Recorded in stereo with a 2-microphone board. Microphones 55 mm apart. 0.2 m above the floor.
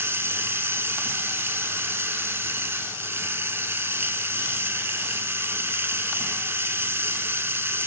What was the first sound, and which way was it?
Running water, 45° right (ahead or behind).